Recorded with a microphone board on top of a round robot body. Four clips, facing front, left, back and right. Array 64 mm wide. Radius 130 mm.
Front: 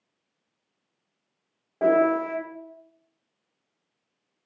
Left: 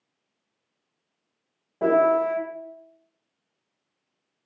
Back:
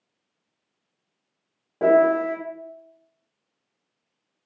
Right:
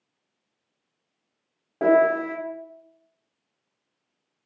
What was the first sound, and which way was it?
A piano, 90° right.